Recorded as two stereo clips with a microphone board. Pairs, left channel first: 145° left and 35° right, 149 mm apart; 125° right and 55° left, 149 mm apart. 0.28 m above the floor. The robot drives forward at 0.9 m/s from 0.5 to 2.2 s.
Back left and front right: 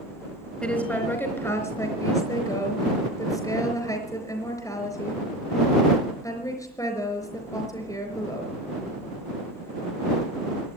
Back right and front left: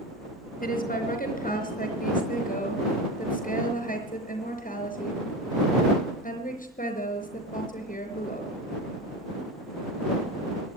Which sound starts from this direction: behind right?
A woman speaking, at 0.6 s.